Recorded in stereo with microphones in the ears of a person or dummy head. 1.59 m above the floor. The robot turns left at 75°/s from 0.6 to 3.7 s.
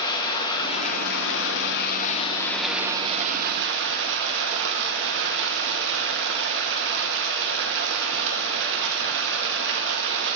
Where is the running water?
150° left, 1.1 m; by 10.4 s 80° right, 1.1 m.